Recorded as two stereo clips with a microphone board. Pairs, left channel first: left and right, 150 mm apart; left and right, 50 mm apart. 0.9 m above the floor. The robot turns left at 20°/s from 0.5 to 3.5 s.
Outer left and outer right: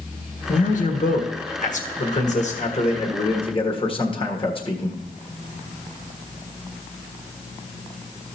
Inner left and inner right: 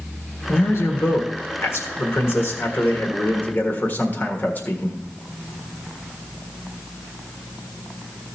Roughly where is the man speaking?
Left.